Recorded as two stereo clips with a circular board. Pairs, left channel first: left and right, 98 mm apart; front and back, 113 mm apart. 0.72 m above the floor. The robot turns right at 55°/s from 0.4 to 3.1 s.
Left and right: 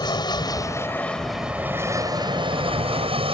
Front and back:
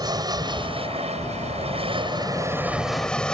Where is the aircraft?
130° left; by 3.3 s 80° right.